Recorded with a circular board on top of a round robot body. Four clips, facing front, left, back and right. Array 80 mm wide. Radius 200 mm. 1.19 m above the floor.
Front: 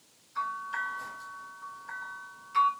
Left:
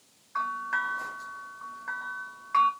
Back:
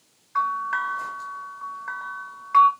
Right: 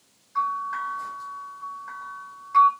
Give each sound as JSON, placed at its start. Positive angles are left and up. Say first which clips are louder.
{"t": 0.3, "sound": "a bell", "louder": "right 4 dB, back 9 dB", "azimuth_deg": 155, "distance_m": 2.5}